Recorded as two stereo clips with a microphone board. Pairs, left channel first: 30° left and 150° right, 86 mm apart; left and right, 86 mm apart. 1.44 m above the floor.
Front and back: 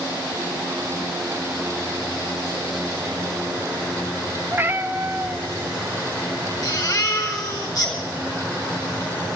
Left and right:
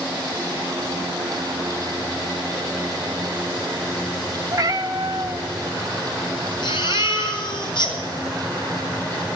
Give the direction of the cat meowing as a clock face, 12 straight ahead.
3 o'clock.